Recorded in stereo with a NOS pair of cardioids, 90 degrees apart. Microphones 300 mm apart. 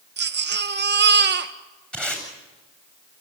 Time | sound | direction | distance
0.2 | a baby crying | 40° right | 1.6 m
1.9 | tape being pulled | 5° left | 8 m